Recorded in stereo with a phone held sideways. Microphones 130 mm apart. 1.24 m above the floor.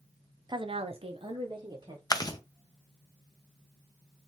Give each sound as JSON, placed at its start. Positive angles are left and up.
{"t": 0.5, "sound": "a woman speaking", "side_deg": -35, "distance_m": 0.5}
{"t": 2.1, "sound": "chewing", "side_deg": 30, "distance_m": 0.6}